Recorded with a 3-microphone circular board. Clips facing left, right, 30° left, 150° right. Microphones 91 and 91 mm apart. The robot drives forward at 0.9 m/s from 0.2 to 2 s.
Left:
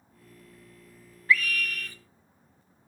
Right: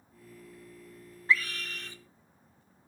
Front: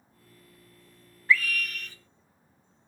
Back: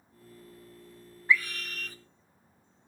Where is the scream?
95° right, 1.0 m; by 2.0 s 145° right, 1.2 m.